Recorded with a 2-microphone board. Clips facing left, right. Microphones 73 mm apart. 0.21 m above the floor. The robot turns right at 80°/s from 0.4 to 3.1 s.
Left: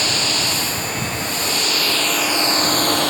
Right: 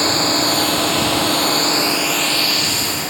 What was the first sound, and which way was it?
A drone, 140° right.